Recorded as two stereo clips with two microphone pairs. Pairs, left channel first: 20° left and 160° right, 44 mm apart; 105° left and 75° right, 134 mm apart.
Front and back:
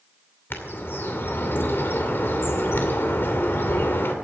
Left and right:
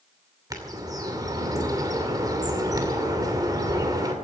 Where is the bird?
15° right, 2.5 m.